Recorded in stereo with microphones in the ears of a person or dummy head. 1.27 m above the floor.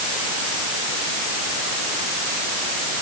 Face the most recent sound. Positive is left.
No sound to turn to.